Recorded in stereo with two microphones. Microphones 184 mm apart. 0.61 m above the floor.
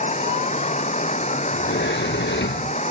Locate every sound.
0.0 s running water: 40° left (ahead or behind)
1.5 s a sliding door: 85° left